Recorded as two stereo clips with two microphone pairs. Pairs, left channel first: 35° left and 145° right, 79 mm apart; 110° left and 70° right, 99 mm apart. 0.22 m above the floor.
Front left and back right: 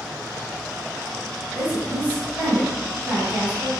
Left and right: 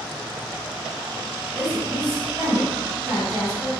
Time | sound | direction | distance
1.6 | a woman speaking | 105° right | 1.0 m